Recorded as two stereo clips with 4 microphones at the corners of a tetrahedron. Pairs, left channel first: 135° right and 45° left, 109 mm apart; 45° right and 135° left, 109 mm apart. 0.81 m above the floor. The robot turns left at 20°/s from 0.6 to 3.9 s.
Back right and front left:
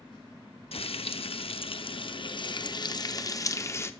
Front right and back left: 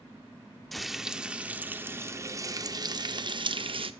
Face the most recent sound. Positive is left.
turn(degrees=160)